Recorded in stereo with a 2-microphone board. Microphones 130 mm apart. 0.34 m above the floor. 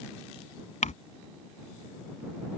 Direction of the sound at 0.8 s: 75° left (ahead or behind).